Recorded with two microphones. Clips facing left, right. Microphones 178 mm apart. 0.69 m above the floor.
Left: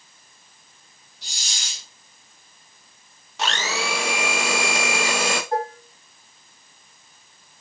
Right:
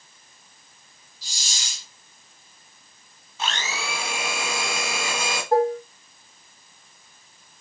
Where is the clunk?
I don't hear a clunk.